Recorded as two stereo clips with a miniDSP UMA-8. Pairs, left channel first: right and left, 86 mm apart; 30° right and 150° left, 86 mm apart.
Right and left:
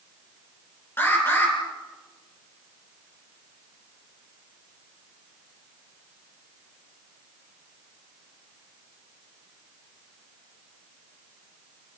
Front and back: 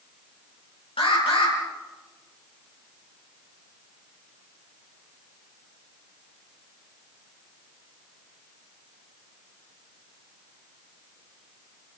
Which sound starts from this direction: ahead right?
An alarm, at 1.0 s.